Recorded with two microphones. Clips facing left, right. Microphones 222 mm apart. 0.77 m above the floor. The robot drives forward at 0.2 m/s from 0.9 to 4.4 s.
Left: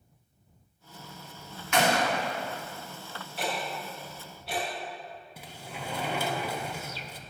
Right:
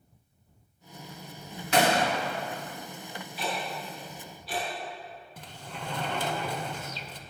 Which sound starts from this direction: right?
A gunshot, at 1.7 s.